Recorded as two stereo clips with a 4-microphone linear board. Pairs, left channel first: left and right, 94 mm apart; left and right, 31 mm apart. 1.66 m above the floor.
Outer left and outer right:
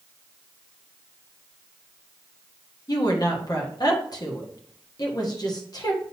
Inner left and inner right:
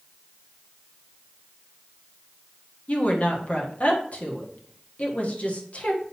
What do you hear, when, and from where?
2.9 s a woman speaking: 45° left (ahead or behind), 1.5 m